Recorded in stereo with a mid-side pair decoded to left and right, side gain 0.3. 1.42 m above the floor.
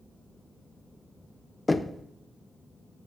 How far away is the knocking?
About 0.9 m.